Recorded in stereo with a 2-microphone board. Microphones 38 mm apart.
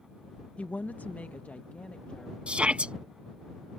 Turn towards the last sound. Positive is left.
turn(degrees=-30)  # may be behind; listen again after turning